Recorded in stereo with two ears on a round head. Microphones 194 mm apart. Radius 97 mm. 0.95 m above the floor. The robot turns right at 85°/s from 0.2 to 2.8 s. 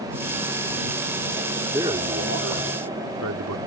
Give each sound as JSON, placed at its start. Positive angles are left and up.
{"t": 1.7, "sound": "a man speaking", "azimuth_deg": -170}